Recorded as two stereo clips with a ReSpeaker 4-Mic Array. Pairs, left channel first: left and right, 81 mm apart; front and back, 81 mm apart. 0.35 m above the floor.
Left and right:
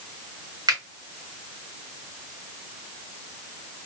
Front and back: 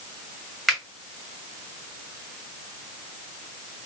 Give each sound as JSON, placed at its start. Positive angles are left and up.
{"t": 0.7, "sound": "a finger snap", "azimuth_deg": -90, "distance_m": 1.7}